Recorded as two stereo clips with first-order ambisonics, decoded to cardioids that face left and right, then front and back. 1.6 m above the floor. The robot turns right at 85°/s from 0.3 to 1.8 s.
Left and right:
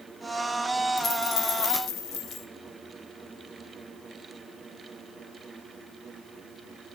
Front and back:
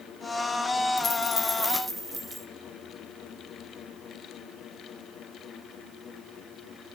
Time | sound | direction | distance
1.0 | a dropped coin | 35° left | 1.5 m